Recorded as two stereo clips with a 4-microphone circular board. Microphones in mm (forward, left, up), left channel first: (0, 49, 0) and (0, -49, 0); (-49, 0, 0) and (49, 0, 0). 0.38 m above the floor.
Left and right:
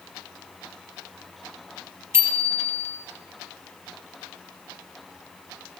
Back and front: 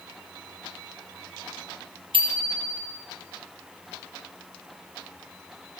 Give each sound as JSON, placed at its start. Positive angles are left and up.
{"t": 2.1, "sound": "a bicycle bell", "azimuth_deg": -25, "distance_m": 6.0}